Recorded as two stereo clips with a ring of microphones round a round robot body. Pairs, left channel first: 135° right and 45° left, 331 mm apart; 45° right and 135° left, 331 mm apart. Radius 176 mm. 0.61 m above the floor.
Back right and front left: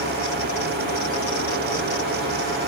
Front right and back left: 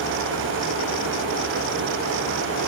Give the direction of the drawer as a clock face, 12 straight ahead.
No drawer in this recording.